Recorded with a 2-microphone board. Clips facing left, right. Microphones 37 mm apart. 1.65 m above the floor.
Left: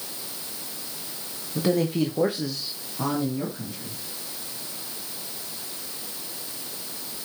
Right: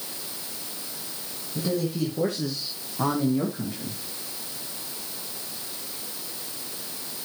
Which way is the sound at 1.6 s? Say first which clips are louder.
Left 4 dB; 70° left (ahead or behind).